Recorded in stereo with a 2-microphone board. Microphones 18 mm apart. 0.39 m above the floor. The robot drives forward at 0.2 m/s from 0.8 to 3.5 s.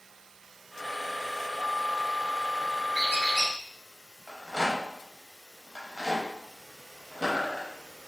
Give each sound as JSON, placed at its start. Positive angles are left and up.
{"t": 2.9, "sound": "a squeak", "side_deg": -20, "distance_m": 1.6}
{"t": 4.3, "sound": "a rattle", "side_deg": -35, "distance_m": 0.6}